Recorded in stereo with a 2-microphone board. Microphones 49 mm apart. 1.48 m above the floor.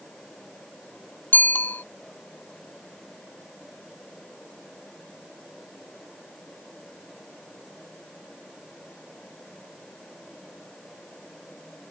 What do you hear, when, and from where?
1.3 s a bicycle bell: 40° left (ahead or behind)